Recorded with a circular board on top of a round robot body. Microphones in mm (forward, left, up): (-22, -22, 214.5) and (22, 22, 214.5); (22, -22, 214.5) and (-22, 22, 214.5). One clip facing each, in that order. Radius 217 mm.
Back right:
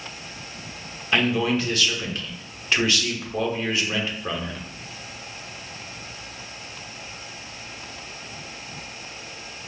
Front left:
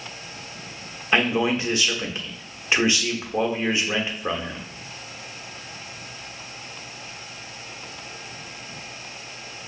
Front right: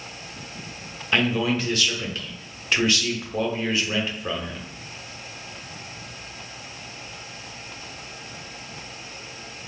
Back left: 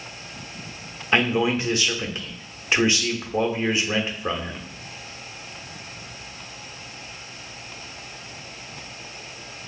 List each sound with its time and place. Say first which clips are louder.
1.1 s a man speaking: front left 1 dB, back left 2 dB; 90° left, 1.0 m